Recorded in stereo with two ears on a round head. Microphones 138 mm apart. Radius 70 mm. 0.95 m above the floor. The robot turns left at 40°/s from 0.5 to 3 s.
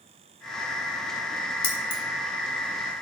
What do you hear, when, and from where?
1.6 s keys jangling: 35° left (ahead or behind), 2.5 m; by 2.0 s 50° left (ahead or behind), 2.5 m